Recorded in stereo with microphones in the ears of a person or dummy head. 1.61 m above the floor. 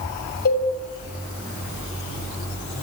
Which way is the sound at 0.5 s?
50° left (ahead or behind).